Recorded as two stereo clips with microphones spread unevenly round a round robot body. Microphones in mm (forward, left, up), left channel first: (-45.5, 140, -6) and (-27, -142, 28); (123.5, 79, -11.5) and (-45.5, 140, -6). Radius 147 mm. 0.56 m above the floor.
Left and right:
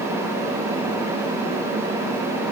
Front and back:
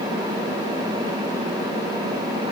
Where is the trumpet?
I don't hear a trumpet.